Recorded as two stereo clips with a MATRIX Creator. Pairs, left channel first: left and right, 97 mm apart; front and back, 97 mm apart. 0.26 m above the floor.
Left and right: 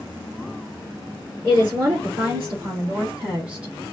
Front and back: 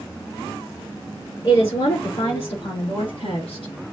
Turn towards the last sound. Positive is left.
turn(degrees=-10)